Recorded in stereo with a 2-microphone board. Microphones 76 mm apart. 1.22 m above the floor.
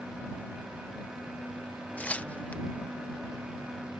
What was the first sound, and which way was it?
Tearing paper, 20° left (ahead or behind).